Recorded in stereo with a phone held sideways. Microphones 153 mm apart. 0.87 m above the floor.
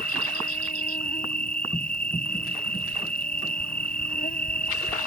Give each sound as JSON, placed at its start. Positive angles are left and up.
{"t": 0.0, "sound": "an insect", "side_deg": 75}